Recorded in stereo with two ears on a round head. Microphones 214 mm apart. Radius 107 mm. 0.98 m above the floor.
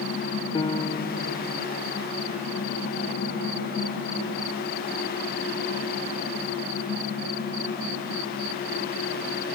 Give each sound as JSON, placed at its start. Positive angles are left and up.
{"t": 0.6, "sound": "a piano", "side_deg": 20}